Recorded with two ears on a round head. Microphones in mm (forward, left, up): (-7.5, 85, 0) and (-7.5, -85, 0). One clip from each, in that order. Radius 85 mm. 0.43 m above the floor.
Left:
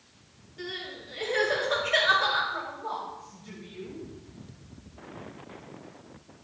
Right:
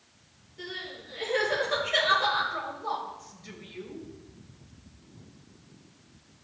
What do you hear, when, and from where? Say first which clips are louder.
0.6 s crying: left 1 dB; 20° left (ahead or behind), 4 m
2.5 s a woman speaking: right 1 dB; 50° right (ahead or behind), 2 m